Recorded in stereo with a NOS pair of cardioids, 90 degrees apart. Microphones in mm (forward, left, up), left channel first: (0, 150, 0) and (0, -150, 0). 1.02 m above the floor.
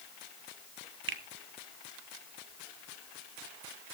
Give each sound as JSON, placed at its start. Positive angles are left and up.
{"t": 1.1, "sound": "a finger snap", "azimuth_deg": -40, "distance_m": 1.7}